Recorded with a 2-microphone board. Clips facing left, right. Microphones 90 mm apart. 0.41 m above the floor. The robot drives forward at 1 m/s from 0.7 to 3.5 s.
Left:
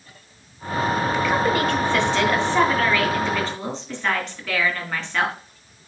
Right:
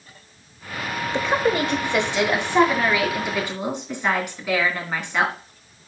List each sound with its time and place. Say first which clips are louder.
1.1 s a woman speaking: right 3 dB; 25° right (ahead or behind), 1.2 m; by 5.3 s 10° right (ahead or behind), 3.5 m